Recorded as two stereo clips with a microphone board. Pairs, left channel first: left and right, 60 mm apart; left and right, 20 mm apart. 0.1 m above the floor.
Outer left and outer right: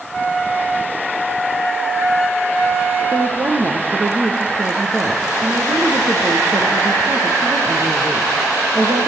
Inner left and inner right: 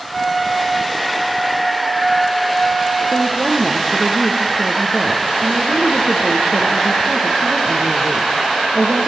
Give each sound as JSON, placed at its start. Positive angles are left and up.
{"t": 3.1, "sound": "a woman speaking", "side_deg": -50, "distance_m": 4.0}